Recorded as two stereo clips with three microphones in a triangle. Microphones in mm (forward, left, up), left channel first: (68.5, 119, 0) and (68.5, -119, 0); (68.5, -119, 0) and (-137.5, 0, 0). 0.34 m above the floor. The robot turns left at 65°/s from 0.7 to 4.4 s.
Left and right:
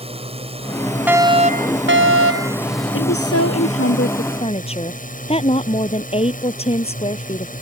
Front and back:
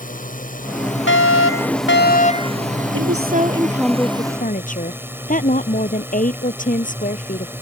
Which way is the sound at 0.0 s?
45° right.